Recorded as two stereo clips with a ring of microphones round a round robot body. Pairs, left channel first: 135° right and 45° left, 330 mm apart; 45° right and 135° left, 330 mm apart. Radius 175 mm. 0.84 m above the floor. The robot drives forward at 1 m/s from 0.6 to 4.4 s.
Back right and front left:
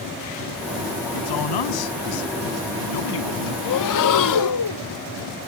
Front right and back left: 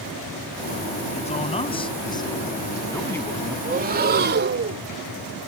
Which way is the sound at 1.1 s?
115° right.